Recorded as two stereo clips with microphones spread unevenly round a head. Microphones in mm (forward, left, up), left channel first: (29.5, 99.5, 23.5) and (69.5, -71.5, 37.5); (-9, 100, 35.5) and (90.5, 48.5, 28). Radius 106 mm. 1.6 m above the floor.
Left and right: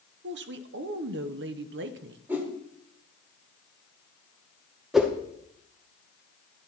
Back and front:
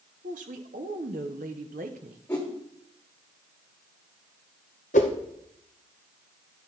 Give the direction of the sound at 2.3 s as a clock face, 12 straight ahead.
5 o'clock.